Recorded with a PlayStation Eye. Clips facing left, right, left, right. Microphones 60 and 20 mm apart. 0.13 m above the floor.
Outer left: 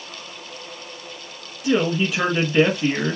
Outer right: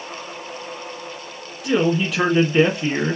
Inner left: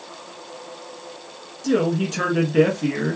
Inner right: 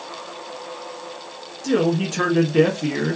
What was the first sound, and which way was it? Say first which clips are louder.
A man speaking: outer right 1 dB, inner right 1 dB; centre (ahead or behind).